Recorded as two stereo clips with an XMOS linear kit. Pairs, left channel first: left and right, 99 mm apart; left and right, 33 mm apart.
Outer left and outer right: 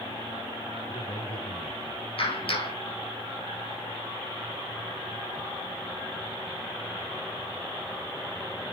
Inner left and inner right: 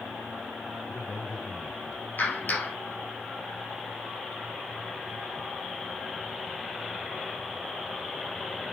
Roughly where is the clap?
Left.